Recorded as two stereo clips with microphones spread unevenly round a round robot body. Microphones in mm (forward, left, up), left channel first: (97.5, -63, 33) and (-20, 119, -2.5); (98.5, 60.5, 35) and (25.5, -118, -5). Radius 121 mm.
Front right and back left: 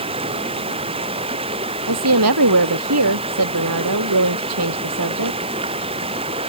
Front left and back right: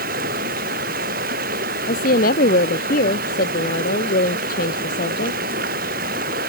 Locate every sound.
0.0 s running water: 170° right
1.9 s a woman speaking: 125° left